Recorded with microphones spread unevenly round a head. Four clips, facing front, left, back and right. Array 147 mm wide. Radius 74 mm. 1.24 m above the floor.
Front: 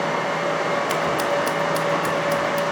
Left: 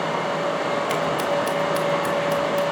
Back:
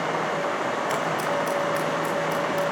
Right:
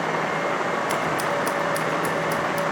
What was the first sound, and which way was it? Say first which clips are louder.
Scissors: left 2 dB, front 4 dB; 10° left.